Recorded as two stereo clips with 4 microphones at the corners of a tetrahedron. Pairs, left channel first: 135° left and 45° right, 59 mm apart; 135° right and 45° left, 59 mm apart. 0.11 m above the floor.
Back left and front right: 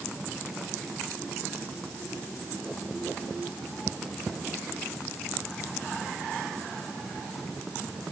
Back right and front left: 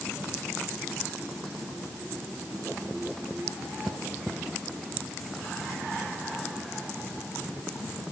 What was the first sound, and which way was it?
Only background noise.